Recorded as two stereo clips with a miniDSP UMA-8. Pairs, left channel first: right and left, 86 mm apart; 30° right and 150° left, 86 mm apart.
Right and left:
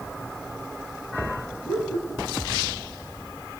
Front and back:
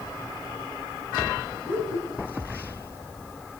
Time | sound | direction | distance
1.6 | laughter | 140° right | 5 m